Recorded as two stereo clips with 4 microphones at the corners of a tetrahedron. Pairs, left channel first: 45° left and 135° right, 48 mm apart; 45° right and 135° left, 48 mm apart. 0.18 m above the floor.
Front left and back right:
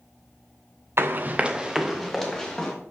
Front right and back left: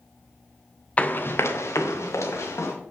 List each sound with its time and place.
1.0 s running footsteps: 105° right, 0.8 m; by 2.7 s 30° right, 2.5 m